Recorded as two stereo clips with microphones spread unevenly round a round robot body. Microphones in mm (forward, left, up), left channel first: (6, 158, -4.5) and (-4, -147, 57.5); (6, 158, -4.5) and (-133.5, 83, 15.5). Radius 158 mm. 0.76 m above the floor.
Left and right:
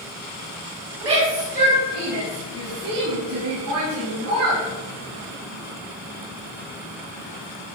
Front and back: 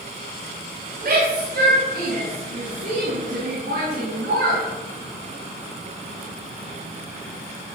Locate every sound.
1.0 s a shout: 165° right, 6 m; by 4.6 s 135° right, 9.5 m